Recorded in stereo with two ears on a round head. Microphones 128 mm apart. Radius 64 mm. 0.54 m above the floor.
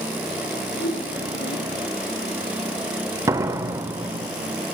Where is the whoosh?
85° left, 4.5 m.